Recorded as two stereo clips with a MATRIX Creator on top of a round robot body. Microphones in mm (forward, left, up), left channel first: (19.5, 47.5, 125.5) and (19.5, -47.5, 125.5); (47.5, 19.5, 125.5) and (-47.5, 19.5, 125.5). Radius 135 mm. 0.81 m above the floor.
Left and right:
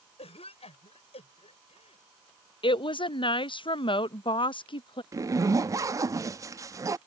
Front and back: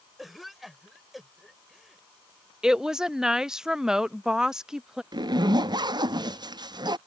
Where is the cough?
90° left.